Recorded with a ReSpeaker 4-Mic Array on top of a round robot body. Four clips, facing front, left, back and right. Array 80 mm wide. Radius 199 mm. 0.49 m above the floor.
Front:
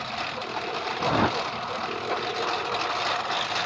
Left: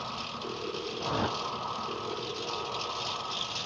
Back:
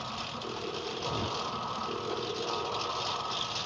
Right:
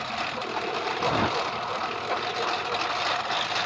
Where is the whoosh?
15° right.